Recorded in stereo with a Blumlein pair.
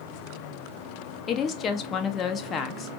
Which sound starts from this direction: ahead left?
A woman speaking, at 1.3 s.